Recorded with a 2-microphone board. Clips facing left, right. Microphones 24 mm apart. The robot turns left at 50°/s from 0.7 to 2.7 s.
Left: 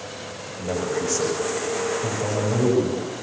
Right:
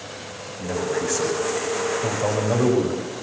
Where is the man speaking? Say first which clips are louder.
Right 1 dB; 50° left, 7.5 m; by 3.1 s 50° right, 7.5 m.